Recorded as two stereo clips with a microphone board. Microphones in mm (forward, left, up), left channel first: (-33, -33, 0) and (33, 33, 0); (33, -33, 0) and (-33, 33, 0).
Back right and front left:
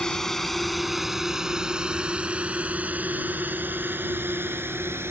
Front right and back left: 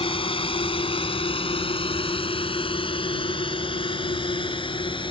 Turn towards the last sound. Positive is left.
turn(degrees=-20)